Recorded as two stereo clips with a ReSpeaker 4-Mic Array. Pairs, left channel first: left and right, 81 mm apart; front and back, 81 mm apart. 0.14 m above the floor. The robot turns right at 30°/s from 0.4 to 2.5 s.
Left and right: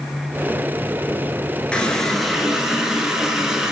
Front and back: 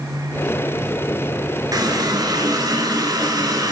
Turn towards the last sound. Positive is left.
turn(degrees=-175)